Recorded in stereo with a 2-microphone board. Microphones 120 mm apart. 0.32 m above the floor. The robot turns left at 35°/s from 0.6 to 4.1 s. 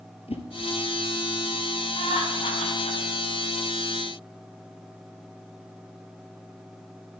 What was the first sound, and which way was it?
A whoosh, 60° left (ahead or behind).